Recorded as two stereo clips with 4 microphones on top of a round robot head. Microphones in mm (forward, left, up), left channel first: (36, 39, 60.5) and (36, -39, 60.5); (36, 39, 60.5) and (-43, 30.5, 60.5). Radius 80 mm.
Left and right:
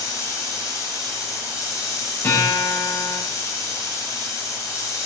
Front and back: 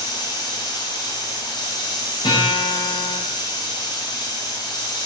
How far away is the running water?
About 4 m.